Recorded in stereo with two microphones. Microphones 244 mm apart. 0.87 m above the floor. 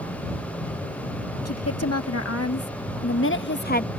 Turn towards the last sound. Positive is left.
turn(degrees=30)  # may be behind; listen again after turning